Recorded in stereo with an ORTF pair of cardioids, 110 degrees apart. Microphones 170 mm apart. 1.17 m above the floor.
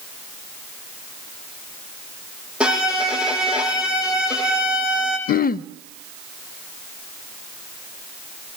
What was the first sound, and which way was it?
A violin, 5° right.